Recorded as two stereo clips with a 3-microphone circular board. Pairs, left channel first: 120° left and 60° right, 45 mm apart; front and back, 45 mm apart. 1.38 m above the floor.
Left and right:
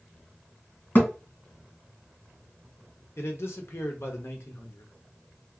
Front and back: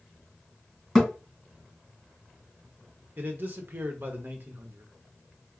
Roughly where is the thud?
Left.